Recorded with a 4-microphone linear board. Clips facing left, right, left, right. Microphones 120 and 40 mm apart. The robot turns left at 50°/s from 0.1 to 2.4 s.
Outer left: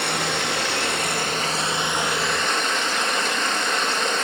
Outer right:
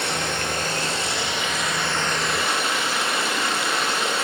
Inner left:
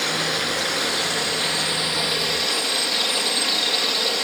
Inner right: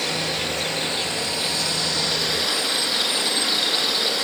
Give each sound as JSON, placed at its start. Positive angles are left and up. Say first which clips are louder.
{"t": 0.0, "sound": "running water", "louder": "outer left 1 dB, inner left 2 dB", "azimuth_deg": 110, "distance_m": 3.0}